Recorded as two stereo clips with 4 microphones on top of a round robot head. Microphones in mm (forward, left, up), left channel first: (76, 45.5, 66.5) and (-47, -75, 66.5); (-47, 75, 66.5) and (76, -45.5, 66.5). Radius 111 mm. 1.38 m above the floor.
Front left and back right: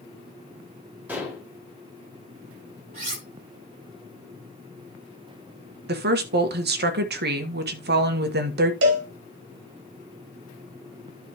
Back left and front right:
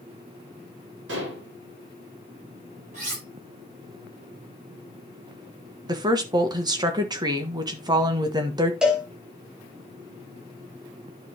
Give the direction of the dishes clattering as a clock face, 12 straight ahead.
2 o'clock.